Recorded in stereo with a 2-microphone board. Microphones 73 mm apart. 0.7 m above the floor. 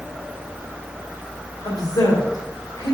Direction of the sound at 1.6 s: 60° left (ahead or behind).